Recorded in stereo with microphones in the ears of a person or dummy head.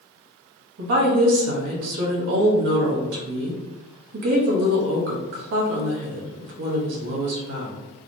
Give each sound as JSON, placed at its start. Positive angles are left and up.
{"t": 0.8, "sound": "a woman speaking", "side_deg": -55, "distance_m": 1.0}